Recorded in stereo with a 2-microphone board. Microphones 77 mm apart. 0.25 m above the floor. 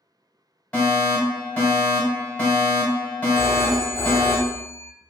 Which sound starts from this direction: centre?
A fire alarm, at 0.7 s.